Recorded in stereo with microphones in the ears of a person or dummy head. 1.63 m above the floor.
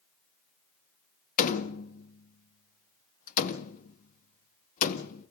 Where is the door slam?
50° left (ahead or behind), 1.9 m.